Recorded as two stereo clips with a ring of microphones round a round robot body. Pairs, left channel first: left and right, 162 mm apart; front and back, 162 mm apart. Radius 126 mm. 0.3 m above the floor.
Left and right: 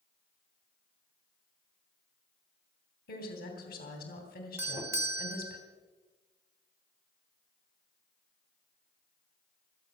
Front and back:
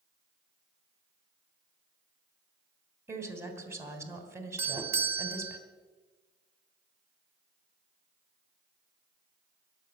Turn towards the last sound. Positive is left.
turn(degrees=-135)